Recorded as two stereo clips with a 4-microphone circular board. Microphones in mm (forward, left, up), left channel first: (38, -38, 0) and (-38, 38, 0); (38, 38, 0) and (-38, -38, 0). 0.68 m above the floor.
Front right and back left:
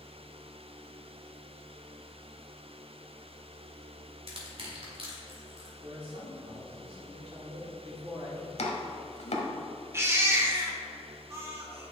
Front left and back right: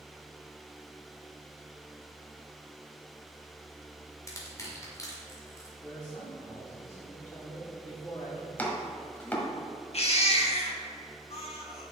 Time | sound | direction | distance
4.3 | crushing | 105° left | 1.9 m
5.8 | a man speaking | 110° left | 2 m
8.6 | chopping | 30° right | 1.3 m
9.9 | a baby crying | 70° left | 1.2 m